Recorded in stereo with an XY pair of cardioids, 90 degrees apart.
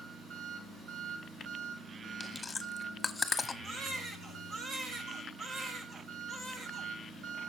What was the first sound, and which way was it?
An engine running, 65° right.